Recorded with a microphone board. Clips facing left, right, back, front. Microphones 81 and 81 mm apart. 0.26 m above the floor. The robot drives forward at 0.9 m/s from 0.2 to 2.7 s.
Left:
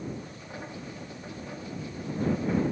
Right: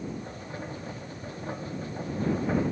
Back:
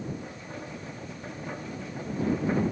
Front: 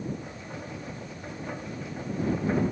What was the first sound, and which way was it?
Only background noise.